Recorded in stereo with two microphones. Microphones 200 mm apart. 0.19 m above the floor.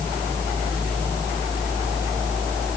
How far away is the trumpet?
No trumpet in this recording.